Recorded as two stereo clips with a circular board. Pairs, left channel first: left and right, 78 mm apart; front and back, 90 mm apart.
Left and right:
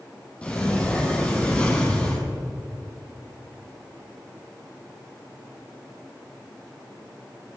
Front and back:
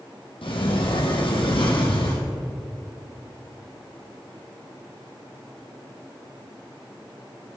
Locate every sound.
0.4 s a sliding door: 15° left, 2.5 m